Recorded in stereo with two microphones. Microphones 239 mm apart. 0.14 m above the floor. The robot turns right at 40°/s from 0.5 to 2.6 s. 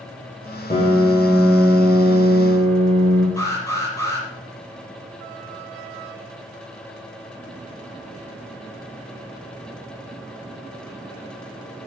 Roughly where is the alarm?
Centre.